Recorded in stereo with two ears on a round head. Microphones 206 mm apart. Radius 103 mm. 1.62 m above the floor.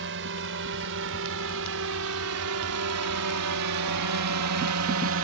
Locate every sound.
0.0 s a drone: 55° right (ahead or behind); by 5.2 s 60° right (ahead or behind)